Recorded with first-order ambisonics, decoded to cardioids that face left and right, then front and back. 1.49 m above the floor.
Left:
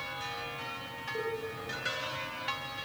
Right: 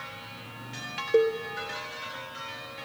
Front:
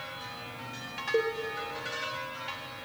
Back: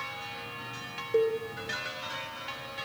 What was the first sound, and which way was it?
A cowbell, 85° right.